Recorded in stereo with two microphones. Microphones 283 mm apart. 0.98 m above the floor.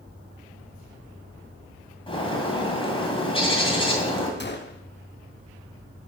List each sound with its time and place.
2.1 s a bird: 20° left (ahead or behind), 2 m
4.4 s a gunshot: 40° left (ahead or behind), 0.9 m